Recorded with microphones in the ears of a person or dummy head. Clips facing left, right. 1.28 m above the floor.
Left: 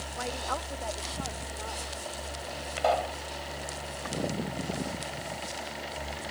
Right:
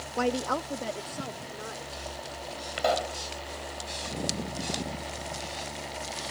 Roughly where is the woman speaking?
Right.